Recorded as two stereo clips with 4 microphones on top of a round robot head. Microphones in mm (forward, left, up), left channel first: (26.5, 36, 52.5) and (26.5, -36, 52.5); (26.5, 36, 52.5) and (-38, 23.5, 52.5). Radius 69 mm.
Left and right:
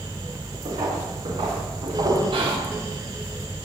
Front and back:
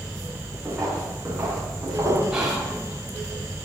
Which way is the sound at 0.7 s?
90° right.